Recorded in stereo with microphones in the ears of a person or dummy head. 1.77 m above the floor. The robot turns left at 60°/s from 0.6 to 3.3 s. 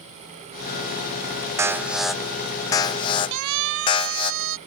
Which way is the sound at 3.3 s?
85° right.